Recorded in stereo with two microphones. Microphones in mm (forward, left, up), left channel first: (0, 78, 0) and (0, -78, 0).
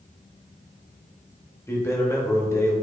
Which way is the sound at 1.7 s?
15° left (ahead or behind).